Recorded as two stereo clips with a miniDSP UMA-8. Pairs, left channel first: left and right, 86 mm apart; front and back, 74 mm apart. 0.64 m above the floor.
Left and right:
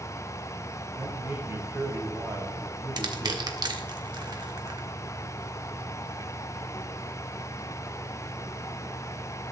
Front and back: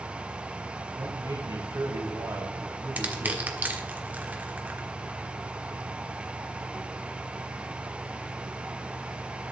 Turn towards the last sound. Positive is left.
turn(degrees=-115)